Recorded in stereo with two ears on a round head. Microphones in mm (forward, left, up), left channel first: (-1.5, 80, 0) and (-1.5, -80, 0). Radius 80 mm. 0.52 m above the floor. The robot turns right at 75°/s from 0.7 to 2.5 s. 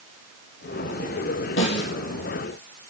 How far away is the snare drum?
About 5 m.